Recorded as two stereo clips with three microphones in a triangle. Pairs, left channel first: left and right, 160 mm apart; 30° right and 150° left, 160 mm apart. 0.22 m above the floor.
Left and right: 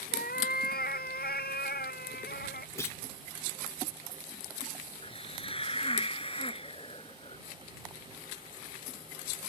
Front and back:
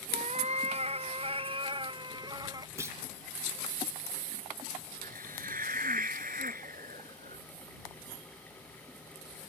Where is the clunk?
120° left.